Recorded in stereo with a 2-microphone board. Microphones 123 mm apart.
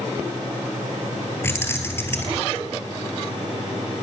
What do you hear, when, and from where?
1.4 s keys jangling: 20° left (ahead or behind), 2.5 m